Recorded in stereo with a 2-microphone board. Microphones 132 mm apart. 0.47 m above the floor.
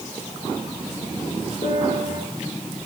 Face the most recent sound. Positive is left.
turn(degrees=70)  # may be behind; listen again after turning